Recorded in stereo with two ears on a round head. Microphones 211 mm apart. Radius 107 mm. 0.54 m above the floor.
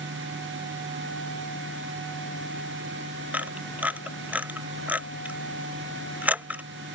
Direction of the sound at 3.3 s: 5° right (ahead or behind).